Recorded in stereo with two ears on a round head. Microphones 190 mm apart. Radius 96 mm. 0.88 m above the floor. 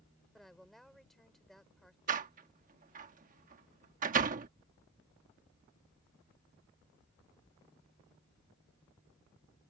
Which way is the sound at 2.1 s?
40° right (ahead or behind).